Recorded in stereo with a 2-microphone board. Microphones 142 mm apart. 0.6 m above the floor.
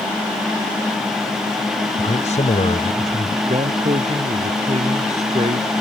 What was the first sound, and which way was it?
A man speaking, 50° left (ahead or behind).